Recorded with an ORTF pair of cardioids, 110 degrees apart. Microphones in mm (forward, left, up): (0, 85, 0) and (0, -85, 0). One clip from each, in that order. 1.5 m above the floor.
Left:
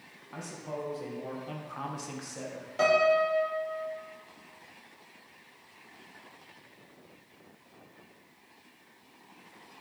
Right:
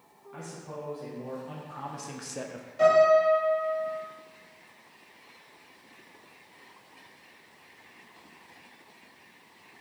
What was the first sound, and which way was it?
A man speaking, 50° left.